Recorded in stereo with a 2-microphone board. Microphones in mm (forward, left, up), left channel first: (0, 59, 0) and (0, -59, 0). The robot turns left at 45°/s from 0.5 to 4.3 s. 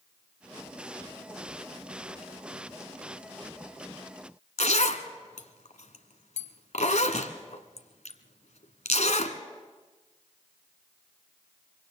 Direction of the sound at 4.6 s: 80° left.